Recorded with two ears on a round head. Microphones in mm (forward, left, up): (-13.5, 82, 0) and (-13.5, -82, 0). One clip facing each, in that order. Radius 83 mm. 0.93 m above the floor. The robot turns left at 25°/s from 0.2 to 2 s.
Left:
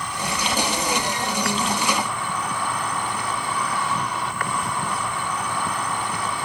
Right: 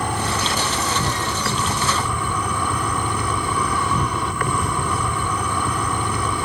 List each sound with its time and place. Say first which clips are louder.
0.0 s an insect: right 4 dB; 40° right; by 6.5 s 85° right